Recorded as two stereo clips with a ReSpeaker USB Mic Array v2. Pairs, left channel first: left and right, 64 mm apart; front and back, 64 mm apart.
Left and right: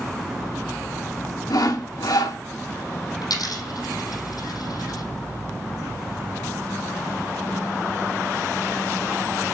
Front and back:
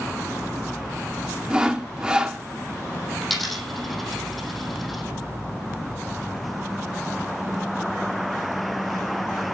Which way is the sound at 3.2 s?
90° left.